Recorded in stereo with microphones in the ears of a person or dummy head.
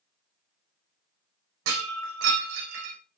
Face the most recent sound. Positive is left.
turn(degrees=-75)  # may be behind; listen again after turning